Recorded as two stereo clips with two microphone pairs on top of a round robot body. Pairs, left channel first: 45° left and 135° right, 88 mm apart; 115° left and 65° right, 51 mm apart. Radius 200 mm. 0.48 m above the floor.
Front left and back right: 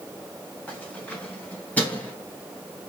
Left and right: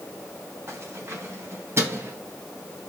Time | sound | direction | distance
0.7 | keys jangling | 30° right | 4 m